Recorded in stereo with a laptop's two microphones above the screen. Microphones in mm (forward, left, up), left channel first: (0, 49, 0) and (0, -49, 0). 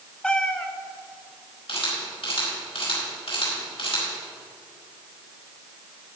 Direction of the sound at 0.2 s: 10° left (ahead or behind).